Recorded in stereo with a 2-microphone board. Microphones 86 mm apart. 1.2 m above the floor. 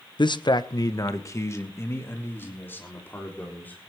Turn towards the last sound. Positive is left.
turn(degrees=20)  # may be behind; listen again after turning